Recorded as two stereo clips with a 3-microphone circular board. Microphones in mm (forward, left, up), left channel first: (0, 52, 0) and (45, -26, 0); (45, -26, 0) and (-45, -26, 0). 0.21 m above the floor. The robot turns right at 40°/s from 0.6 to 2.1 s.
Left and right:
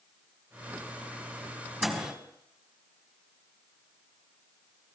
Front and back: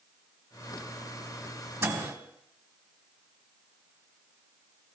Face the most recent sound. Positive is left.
turn(degrees=-135)